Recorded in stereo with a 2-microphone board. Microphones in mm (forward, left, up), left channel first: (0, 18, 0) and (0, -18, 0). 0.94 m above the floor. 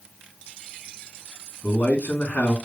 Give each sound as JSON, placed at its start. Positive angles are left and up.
{"t": 1.6, "sound": "a man speaking", "side_deg": 55, "distance_m": 1.5}